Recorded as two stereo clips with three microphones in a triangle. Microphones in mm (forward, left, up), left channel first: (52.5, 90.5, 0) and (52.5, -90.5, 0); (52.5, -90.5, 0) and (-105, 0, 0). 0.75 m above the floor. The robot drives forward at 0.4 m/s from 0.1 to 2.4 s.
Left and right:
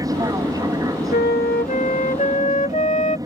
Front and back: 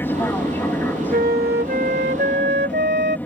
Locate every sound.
0.0 s an aircraft: 85° right; by 3.3 s 90° right
1.1 s a flute: 115° left; by 3.2 s 135° left